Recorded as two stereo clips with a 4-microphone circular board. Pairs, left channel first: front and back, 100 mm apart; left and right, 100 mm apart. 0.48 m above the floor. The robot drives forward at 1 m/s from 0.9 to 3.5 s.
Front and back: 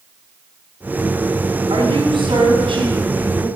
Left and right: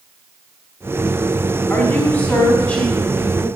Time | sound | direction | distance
1.7 | a woman speaking | 155° left | 3 m